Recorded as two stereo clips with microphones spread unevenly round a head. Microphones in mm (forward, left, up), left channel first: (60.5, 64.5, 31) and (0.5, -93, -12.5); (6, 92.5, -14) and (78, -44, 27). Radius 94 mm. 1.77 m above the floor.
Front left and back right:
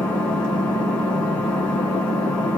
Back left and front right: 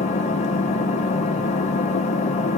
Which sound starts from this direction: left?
An engine running, at 0.0 s.